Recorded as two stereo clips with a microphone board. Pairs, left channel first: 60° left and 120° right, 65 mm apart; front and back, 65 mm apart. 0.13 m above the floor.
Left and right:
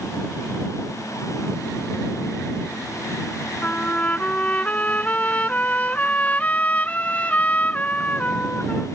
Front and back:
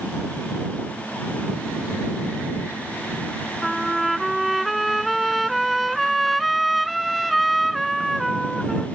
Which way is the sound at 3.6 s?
90° left.